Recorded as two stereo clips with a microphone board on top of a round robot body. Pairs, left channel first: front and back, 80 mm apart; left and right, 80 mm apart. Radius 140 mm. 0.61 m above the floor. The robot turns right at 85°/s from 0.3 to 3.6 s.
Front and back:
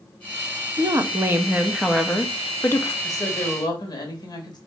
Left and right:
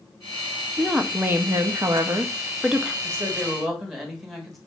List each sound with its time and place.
0.8 s a woman speaking: straight behind, 0.8 m; by 2.9 s 5° left, 0.8 m
3.0 s a woman speaking: 45° right, 1.9 m; by 4.6 s straight ahead, 1.9 m